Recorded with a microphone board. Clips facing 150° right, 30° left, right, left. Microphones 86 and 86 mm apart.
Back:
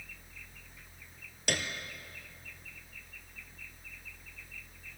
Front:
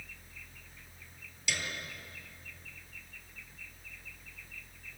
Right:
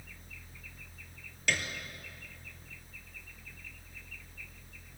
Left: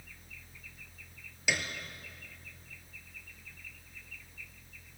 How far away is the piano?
About 2.0 m.